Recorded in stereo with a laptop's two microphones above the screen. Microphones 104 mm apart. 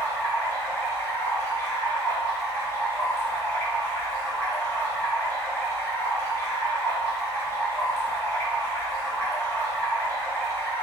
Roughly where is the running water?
Left.